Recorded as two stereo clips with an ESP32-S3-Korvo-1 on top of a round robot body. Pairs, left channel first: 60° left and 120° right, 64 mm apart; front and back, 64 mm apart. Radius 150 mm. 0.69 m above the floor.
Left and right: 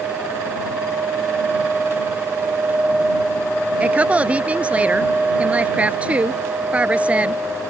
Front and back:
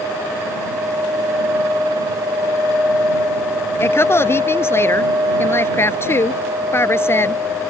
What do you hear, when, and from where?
3.8 s a woman speaking: 50° right